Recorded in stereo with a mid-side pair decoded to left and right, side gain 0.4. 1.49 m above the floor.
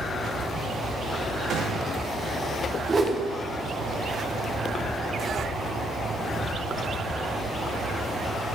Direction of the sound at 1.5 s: 70° right.